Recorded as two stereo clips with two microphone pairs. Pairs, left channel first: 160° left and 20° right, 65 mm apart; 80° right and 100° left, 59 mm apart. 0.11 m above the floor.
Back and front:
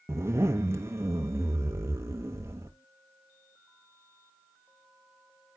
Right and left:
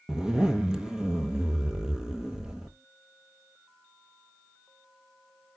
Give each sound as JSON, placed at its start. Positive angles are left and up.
{"t": 0.1, "sound": "a zipper", "azimuth_deg": 20, "distance_m": 1.1}